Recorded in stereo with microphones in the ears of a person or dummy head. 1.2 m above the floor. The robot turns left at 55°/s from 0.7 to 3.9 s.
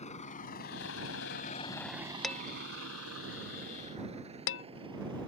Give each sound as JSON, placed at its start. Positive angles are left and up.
{"t": 0.0, "sound": "a vehicle", "side_deg": 40}
{"t": 2.2, "sound": "dishes clattering", "side_deg": 0}